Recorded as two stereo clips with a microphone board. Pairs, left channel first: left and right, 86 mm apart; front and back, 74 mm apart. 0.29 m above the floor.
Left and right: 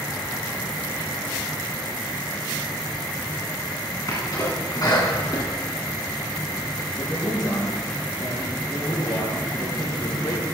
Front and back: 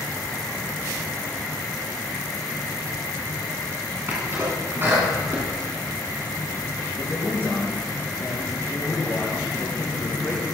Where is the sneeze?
125° left, 2.5 m.